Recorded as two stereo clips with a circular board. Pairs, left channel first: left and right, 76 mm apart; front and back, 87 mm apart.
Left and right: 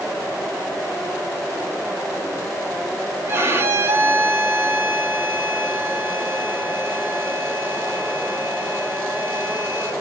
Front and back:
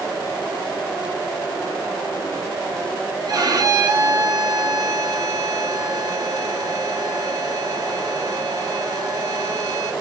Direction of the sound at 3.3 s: 140° right.